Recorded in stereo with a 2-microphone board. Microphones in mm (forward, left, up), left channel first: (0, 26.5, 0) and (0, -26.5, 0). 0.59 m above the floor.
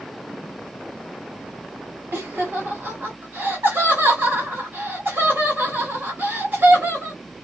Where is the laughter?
45° right (ahead or behind), 0.9 m.